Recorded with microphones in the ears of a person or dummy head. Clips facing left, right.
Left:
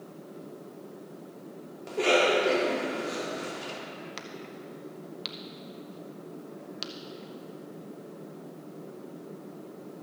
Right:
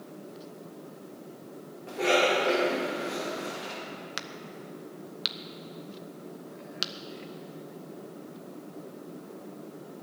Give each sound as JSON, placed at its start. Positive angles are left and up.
{"t": 1.9, "sound": "a cough", "side_deg": 55, "distance_m": 3.5}
{"t": 4.2, "sound": "a crack", "side_deg": -5, "distance_m": 0.6}